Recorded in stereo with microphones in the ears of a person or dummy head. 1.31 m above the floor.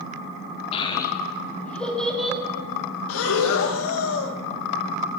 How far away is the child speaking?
About 0.8 m.